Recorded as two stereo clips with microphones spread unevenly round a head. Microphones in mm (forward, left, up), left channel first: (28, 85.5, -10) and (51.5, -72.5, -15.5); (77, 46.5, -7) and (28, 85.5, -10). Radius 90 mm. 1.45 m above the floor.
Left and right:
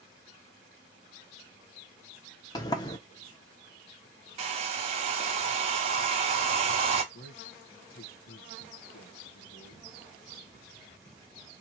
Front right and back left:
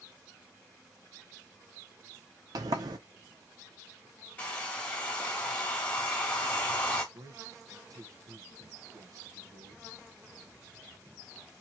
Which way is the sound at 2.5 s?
170° left.